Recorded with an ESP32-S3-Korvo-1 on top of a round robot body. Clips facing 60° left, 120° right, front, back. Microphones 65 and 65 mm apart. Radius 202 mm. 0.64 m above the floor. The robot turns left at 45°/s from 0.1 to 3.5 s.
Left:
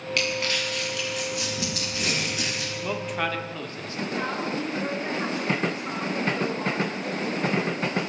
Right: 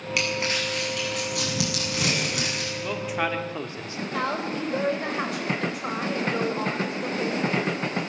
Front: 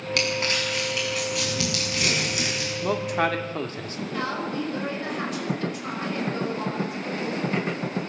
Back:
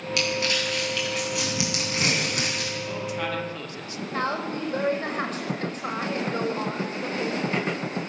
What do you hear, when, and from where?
0.2 s crumpling: 35° right, 8.5 m; by 2.7 s 150° right, 8.5 m
2.8 s a man speaking: 20° right, 2.5 m; by 4.0 s 50° right, 2.5 m
4.1 s a woman speaking: 130° right, 5 m